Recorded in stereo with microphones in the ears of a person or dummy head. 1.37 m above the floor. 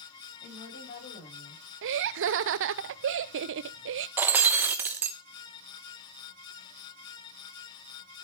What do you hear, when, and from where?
0.4 s a woman speaking: 55° left (ahead or behind), 7 m; by 1.6 s 40° left (ahead or behind), 6.5 m
1.8 s laughter: 60° right (ahead or behind), 0.5 m
4.2 s breaking glass: 10° right (ahead or behind), 0.6 m